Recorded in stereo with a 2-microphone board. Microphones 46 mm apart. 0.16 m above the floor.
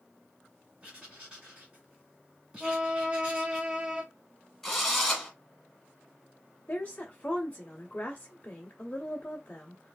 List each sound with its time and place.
0.8 s writing: 20° right (ahead or behind), 1.8 m
2.6 s a violin: 20° right (ahead or behind), 0.8 m
4.6 s a drill: 5° left (ahead or behind), 1.4 m
6.7 s a woman speaking: 30° left (ahead or behind), 1.2 m